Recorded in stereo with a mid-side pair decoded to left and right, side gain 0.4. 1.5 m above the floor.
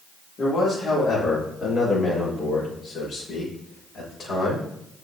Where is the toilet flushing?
I don't hear a toilet flushing.